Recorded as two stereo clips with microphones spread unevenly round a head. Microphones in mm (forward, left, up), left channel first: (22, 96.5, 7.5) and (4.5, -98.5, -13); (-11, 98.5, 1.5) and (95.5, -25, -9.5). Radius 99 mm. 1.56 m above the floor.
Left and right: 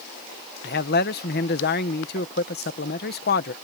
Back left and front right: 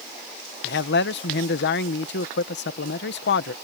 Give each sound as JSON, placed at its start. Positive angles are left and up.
{"t": 0.6, "sound": "a man speaking", "azimuth_deg": 125}